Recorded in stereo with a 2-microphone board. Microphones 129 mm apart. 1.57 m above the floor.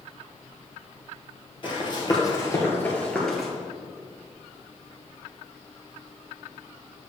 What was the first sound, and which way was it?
Running footsteps, 40° left (ahead or behind).